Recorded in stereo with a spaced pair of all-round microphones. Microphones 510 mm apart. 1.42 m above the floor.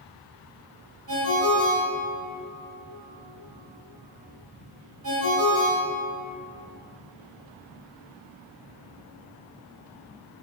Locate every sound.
1.1 s a ringtone: 45° right (ahead or behind), 1.3 m